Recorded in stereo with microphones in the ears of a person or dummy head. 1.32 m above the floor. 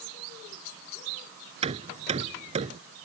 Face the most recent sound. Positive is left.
turn(degrees=-35)  # may be behind; listen again after turning